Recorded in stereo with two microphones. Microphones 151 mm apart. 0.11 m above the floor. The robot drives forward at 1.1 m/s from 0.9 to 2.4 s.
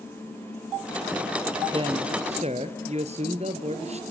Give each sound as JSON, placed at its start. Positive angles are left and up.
{"t": 1.7, "sound": "a man speaking", "side_deg": -35, "distance_m": 2.0}